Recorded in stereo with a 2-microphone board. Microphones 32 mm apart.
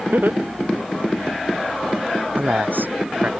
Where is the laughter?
80° right; by 1.4 s 85° right.